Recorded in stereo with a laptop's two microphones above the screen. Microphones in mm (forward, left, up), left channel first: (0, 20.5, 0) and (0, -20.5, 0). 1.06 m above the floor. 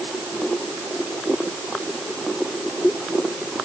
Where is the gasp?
No gasp in this recording.